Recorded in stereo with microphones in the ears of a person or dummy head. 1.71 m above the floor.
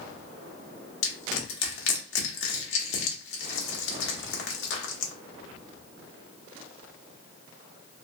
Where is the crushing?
75° left (ahead or behind), 0.8 m.